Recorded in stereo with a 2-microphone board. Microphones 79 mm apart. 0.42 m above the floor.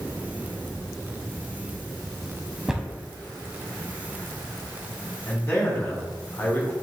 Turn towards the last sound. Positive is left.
turn(degrees=25)  # may be behind; listen again after turning